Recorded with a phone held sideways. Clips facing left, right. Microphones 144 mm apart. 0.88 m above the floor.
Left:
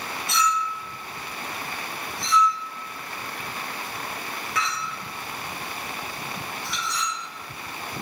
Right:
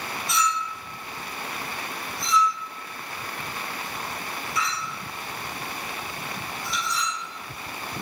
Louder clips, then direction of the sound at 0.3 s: Left 2 dB; 60° left (ahead or behind).